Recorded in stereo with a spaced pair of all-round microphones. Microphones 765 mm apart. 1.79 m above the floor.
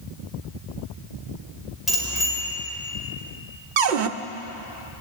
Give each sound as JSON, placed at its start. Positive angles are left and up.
{"t": 1.9, "sound": "a bicycle bell", "side_deg": 0, "distance_m": 5.5}
{"t": 3.8, "sound": "a cupboard door", "side_deg": -85, "distance_m": 0.8}